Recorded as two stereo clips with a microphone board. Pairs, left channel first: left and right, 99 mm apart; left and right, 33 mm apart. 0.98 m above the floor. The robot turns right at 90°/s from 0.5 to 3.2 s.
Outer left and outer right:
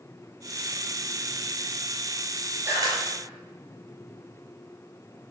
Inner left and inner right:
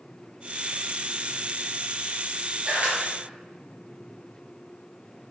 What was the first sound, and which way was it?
A camera shutter, 25° right (ahead or behind).